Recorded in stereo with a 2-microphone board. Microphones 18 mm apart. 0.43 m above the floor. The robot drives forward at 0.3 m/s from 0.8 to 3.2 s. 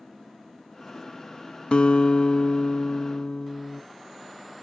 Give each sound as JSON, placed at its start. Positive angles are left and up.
{"t": 1.7, "sound": "a guitar", "side_deg": 60, "distance_m": 0.6}